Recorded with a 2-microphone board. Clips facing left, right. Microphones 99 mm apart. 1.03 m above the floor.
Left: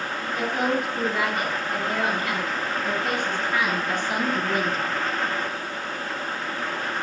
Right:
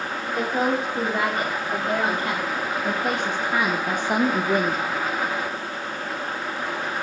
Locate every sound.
0.3 s a woman speaking: 45° right (ahead or behind), 3 m